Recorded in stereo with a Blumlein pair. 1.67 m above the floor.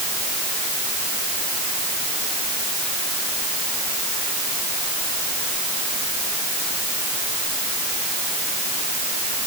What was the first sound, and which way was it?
Only background noise.